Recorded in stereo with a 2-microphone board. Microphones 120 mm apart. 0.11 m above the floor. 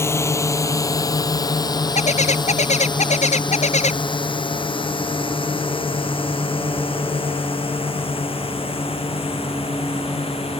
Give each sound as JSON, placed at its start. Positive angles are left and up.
{"t": 0.0, "sound": "a drone", "side_deg": 20}
{"t": 1.9, "sound": "a bird", "side_deg": 70}